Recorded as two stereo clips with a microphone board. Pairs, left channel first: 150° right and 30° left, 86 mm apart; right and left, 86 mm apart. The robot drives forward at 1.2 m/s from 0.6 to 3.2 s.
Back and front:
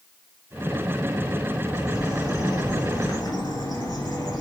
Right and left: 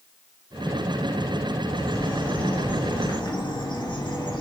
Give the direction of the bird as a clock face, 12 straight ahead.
3 o'clock.